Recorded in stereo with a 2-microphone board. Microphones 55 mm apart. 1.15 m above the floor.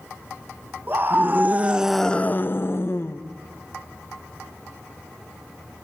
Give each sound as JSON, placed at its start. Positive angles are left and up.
{"t": 0.9, "sound": "a scream", "side_deg": -40, "distance_m": 1.3}